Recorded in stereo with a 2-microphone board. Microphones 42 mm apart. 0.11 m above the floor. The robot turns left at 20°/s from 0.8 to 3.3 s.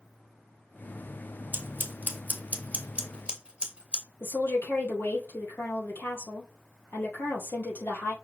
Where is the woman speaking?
65° left (ahead or behind), 2.5 m.